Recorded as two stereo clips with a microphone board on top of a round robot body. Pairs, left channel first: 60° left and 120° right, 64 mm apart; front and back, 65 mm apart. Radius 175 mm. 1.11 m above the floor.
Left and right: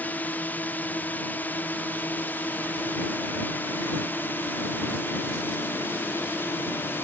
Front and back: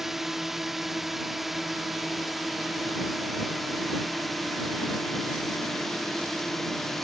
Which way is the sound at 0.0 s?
100° left.